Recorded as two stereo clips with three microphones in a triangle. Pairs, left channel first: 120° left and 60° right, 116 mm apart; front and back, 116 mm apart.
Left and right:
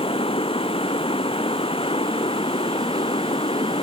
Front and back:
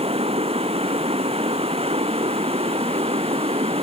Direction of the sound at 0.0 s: 155° left.